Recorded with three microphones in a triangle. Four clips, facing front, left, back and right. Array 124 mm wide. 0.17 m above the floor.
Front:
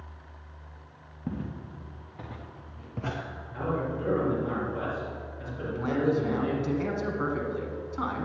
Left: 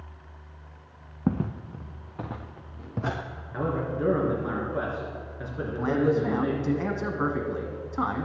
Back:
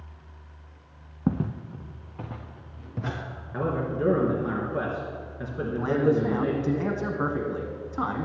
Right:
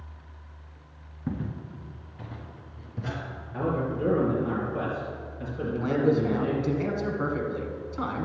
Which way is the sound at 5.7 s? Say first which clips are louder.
Even, back 3 dB; 120° left.